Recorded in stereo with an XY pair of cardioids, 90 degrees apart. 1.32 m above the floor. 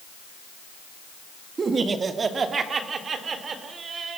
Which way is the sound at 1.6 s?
40° right.